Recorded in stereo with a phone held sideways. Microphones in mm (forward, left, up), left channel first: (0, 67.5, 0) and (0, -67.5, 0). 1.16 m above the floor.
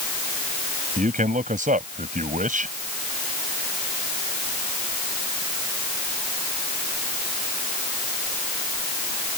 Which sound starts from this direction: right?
A man speaking, at 1.0 s.